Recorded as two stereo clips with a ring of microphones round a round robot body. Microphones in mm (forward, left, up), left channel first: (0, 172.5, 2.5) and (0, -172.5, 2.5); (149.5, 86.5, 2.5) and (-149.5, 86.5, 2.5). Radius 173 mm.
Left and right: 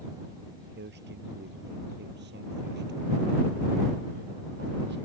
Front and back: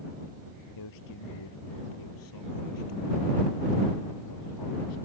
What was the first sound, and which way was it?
A man speaking, 30° right.